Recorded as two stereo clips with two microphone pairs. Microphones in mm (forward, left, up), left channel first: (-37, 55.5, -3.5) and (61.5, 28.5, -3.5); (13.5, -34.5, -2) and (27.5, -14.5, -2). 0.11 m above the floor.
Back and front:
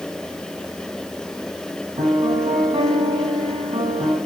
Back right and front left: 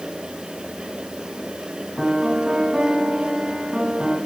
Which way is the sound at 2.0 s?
5° right.